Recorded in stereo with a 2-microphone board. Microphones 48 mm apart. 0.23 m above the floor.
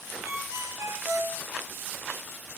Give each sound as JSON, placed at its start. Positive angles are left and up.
{"t": 0.2, "sound": "a ringtone", "side_deg": -70, "distance_m": 4.5}